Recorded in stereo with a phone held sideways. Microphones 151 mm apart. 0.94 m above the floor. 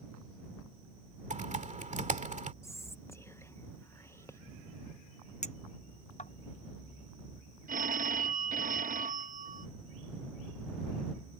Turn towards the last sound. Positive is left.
turn(degrees=-65)  # may be behind; listen again after turning